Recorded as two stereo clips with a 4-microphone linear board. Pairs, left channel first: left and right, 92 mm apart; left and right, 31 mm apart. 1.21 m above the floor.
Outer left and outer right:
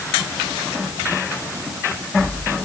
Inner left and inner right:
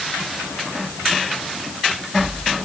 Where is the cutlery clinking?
I don't hear cutlery clinking.